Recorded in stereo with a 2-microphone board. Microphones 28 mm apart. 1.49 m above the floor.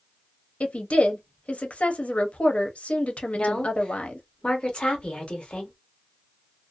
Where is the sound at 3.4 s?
40° left (ahead or behind), 1.1 m.